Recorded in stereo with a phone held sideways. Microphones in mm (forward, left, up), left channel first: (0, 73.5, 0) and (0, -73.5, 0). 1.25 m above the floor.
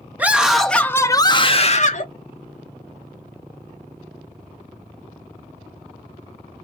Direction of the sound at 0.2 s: 10° right (ahead or behind).